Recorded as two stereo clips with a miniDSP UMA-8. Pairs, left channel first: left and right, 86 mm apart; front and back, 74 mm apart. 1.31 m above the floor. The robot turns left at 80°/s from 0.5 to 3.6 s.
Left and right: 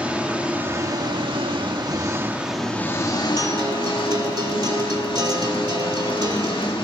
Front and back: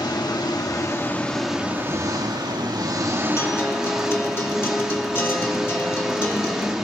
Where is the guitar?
35° right, 2 m; by 6.7 s 55° right, 2 m.